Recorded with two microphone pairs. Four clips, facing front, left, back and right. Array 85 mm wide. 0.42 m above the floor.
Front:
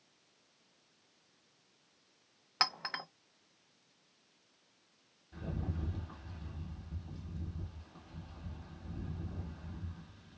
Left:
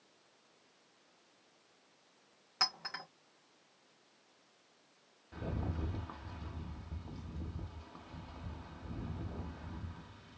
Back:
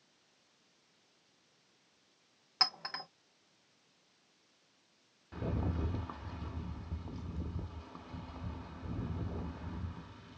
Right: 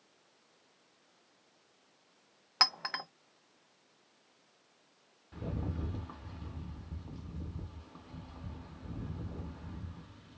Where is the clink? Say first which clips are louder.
Right 6 dB, front 2 dB; 60° right, 0.5 m.